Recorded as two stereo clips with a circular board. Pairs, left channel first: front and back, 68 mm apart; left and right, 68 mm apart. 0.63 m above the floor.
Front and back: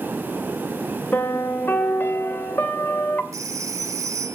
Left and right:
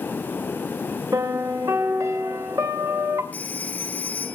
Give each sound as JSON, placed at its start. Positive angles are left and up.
{"t": 1.1, "sound": "a piano", "azimuth_deg": -55, "distance_m": 2.5}
{"t": 3.3, "sound": "a phone ringing", "azimuth_deg": 155, "distance_m": 1.5}